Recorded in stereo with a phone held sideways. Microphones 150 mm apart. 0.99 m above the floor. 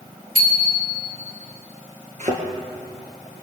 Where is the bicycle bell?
90° right, 3 m.